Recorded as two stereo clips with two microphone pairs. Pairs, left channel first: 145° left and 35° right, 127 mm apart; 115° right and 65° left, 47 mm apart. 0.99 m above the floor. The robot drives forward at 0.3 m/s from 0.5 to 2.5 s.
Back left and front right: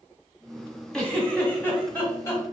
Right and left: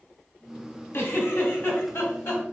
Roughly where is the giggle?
Behind right.